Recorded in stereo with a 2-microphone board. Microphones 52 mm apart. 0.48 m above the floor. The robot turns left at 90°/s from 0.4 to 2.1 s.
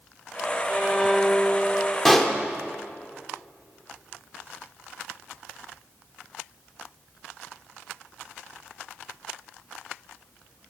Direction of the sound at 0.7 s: 135° right.